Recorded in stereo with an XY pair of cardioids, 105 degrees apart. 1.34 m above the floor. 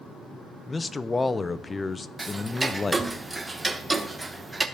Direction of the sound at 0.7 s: 25° left.